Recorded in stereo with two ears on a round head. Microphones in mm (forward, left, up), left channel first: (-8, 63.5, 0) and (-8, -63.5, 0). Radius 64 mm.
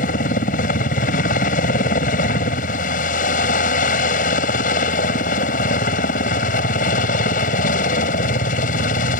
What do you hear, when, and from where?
0.0 s a helicopter: 60° left (ahead or behind)